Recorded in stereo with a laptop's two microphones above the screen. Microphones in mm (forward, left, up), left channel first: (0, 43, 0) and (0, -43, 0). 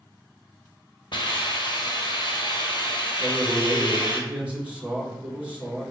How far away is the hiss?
About 1.2 m.